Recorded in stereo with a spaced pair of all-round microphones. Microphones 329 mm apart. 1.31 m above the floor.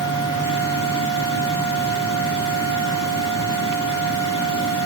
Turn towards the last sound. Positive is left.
turn(degrees=60)  # may be behind; listen again after turning